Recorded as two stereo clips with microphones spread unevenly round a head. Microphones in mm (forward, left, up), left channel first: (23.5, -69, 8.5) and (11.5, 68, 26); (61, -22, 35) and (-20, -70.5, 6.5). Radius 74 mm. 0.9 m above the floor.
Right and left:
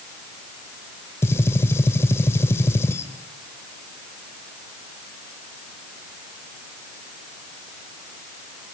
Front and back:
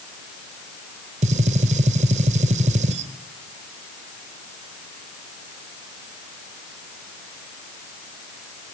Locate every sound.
1.2 s a gunshot: 160° right, 0.9 m